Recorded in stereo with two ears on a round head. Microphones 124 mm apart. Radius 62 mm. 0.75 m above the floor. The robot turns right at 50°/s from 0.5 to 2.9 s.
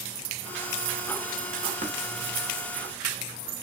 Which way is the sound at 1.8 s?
60° right (ahead or behind).